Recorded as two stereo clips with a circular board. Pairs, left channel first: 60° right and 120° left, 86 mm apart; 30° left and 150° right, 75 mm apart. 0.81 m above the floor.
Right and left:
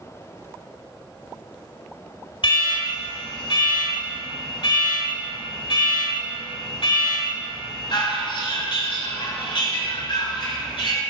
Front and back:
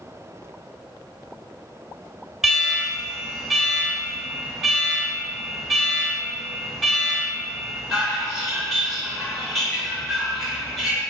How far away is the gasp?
No gasp in this recording.